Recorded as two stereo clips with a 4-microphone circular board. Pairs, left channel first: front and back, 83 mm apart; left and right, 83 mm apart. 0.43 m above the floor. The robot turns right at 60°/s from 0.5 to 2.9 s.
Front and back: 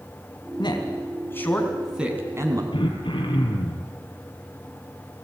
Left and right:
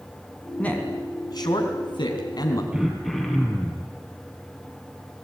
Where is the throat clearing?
10° right, 4 m; by 3.9 s straight ahead, 4 m.